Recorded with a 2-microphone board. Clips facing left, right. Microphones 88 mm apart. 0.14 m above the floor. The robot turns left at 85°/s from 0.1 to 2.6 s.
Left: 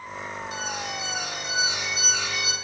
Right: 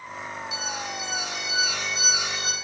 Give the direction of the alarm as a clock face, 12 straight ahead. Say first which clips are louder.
Left 1 dB; 8 o'clock.